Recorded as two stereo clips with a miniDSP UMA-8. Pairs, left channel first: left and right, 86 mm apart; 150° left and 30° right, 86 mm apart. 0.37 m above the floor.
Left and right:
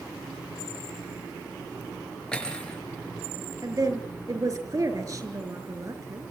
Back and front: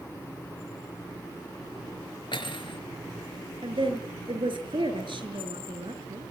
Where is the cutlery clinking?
170° left, 4 m.